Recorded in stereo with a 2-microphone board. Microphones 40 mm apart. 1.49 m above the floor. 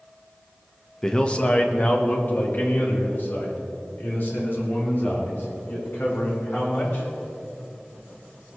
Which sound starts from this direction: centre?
A man speaking, at 1.0 s.